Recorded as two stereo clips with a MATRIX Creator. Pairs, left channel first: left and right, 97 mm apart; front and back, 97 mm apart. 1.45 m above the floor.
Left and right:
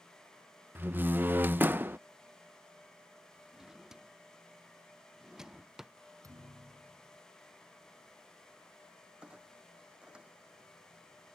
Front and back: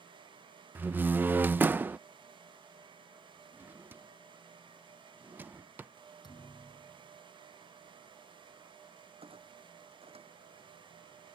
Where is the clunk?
170° right.